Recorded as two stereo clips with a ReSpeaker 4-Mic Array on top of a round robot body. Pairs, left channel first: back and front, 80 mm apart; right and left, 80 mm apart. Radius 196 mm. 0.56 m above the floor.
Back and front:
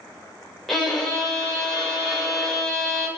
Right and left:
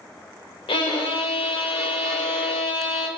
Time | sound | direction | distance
0.7 | a violin | 95° right | 0.8 m